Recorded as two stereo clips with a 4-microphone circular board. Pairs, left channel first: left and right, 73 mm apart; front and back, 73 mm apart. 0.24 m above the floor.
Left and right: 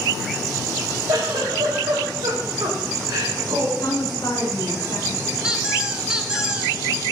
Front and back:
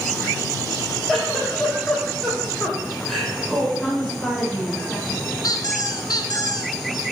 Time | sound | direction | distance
1.1 | a giggle | 90° right | 4 m
3.8 | a woman speaking | 75° left | 5 m
5.4 | a squeak | 10° right | 1.3 m